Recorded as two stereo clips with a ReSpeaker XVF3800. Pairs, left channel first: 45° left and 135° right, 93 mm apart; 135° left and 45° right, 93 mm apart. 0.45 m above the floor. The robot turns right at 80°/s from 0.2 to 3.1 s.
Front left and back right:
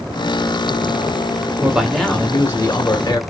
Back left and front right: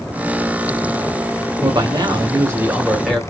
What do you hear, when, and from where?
1.6 s a man speaking: 70° right, 1.0 m; by 3.2 s 50° left, 1.0 m